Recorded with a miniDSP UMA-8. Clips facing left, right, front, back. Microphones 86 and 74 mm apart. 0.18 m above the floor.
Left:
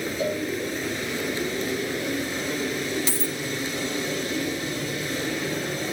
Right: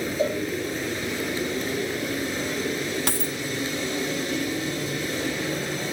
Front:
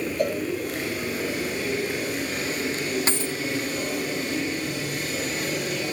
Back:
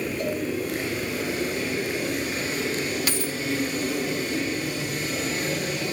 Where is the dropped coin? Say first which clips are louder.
Right 1 dB, front 1 dB; 60° right, 1.6 m.